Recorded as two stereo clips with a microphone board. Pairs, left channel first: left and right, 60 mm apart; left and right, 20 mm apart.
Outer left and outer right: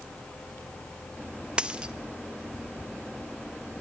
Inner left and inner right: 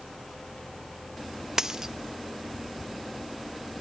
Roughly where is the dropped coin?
Centre.